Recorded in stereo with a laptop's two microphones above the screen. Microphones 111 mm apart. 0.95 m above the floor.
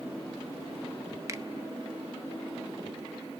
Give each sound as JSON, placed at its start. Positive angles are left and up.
{"t": 1.3, "sound": "a finger snap", "side_deg": -30, "distance_m": 0.5}